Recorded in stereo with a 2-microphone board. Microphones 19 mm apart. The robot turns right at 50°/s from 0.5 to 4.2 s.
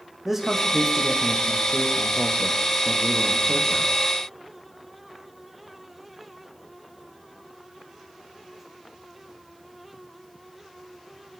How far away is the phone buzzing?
I don't hear a phone buzzing.